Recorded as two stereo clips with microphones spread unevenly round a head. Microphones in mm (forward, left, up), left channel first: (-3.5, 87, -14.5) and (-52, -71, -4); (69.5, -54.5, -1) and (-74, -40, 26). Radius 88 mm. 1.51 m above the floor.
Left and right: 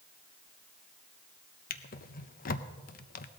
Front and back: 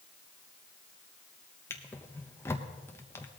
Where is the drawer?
80° left, 0.8 m.